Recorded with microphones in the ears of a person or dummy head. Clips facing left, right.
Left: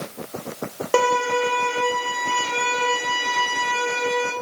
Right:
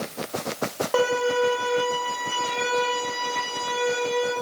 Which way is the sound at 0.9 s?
45° left (ahead or behind).